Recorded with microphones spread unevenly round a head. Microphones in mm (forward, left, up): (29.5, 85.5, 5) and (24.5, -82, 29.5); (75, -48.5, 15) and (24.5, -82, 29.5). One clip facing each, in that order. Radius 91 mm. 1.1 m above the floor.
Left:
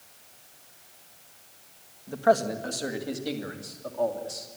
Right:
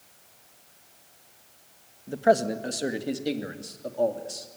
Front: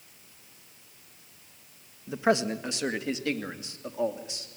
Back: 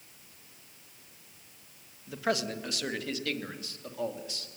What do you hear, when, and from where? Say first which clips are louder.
2.1 s a man speaking: right 1 dB, front 6 dB; 25° right, 1.8 m; by 4.5 s 30° right, 3 m